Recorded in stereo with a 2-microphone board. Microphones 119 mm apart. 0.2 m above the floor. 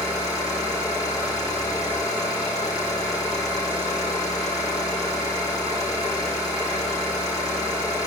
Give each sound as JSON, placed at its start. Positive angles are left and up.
{"t": 0.0, "sound": "an engine running", "side_deg": 30, "distance_m": 5.0}